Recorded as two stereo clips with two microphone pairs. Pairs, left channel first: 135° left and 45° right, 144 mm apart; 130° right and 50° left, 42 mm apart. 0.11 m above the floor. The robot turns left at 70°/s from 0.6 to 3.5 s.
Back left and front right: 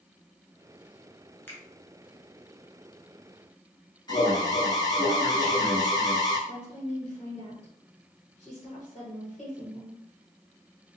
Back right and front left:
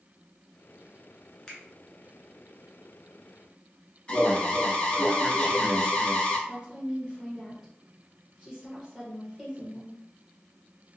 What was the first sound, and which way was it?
A finger snap, 160° right.